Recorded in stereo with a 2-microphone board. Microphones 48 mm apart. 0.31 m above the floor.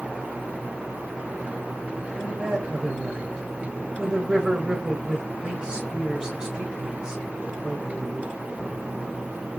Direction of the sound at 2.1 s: 15° right (ahead or behind).